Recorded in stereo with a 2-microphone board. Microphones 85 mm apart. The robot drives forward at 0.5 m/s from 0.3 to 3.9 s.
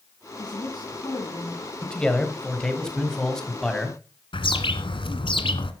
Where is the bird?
80° left, 1.4 m.